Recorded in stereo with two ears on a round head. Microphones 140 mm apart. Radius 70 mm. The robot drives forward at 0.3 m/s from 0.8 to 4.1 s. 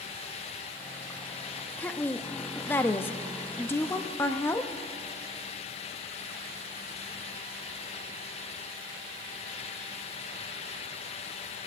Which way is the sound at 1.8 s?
10° left (ahead or behind).